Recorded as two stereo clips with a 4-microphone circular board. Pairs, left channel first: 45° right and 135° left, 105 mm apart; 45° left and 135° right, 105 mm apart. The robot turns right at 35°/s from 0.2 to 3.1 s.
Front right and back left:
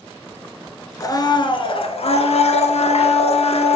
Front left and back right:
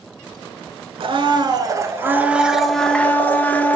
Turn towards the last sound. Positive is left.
turn(degrees=-30)